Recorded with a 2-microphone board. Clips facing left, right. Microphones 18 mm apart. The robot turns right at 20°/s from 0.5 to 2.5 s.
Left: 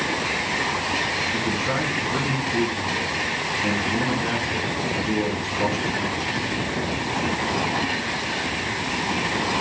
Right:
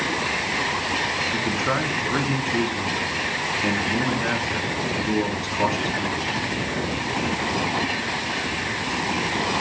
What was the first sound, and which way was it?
A man speaking, 50° right (ahead or behind).